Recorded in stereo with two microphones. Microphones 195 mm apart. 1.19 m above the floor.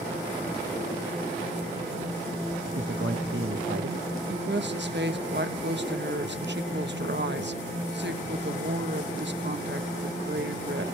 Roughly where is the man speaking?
Right.